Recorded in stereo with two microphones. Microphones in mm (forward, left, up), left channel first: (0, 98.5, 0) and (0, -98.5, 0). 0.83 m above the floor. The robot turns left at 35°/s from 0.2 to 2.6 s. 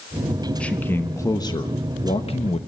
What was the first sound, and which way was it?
A man speaking, 170° left.